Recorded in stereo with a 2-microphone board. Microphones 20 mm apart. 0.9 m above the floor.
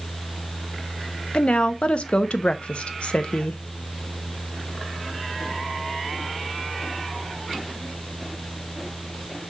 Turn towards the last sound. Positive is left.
turn(degrees=60)  # may be behind; listen again after turning